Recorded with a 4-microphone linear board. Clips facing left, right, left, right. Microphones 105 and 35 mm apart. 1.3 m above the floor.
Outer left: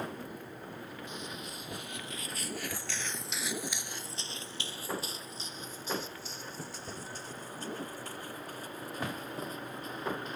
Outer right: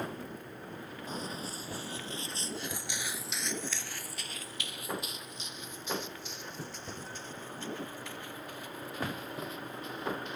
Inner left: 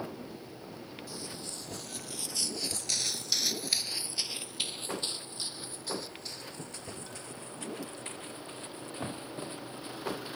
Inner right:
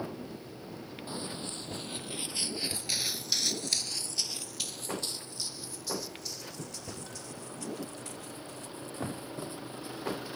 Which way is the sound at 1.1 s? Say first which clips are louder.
Outer right 3 dB, inner right 6 dB; 35° right (ahead or behind).